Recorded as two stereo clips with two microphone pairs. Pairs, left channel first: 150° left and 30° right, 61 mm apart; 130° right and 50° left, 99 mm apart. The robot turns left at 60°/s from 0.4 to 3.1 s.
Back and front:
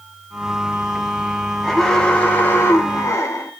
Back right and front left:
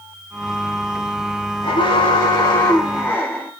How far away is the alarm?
About 2.0 m.